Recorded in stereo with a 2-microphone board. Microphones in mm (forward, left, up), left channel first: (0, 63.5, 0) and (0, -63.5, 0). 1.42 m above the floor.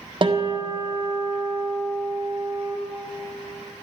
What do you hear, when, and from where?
0.2 s a guitar: 45° right (ahead or behind), 1.5 m